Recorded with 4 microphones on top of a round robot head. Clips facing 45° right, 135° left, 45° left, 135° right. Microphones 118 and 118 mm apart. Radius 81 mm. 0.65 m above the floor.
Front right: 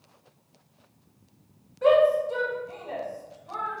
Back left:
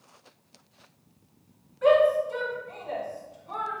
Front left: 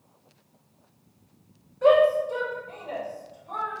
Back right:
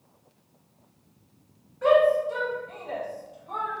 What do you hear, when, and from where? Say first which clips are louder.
1.8 s a shout: front right 1 dB, front left 1 dB; 10° right, 1.3 m; by 3.8 s straight behind, 1.0 m